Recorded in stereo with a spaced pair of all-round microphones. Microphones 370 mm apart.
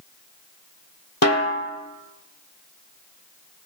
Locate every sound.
1.2 s a snare drum: 45° left (ahead or behind), 1.6 m